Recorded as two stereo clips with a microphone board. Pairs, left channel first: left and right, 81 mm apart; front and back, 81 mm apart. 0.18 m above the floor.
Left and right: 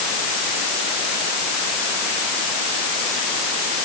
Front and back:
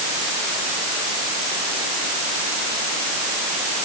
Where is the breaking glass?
I don't hear breaking glass.